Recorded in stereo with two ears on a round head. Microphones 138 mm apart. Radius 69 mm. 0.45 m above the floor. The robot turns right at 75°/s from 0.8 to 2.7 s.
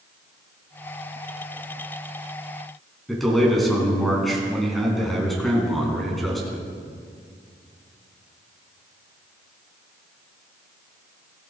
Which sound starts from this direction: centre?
A man speaking, at 3.1 s.